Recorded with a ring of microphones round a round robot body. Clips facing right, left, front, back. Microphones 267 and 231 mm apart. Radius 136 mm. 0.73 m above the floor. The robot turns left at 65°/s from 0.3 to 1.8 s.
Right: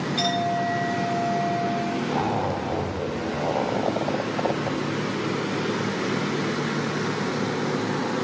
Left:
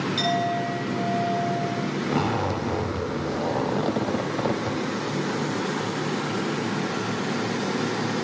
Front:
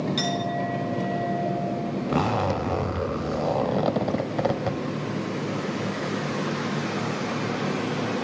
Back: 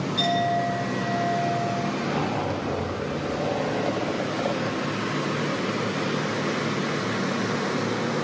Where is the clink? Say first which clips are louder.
Even, back 2 dB; 20° left, 9 m; by 1.8 s 80° right, 9 m.